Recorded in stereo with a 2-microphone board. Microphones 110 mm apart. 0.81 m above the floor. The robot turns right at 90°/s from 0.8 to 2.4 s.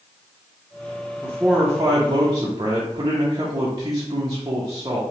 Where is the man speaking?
175° right, 0.8 m; by 5.0 s 70° right, 0.8 m.